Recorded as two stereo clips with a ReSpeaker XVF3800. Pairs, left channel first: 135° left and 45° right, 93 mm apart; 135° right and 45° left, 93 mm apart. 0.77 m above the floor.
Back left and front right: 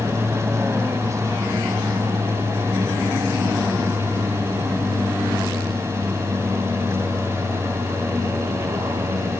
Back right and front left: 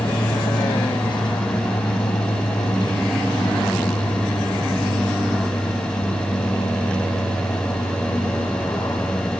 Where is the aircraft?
105° right; by 9.4 s 90° right.